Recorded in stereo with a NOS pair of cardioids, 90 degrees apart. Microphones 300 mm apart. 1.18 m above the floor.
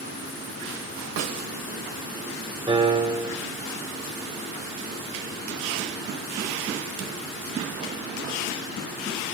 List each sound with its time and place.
1.2 s a snare drum: 65° right, 2.5 m
2.7 s a piano: 15° right, 8.5 m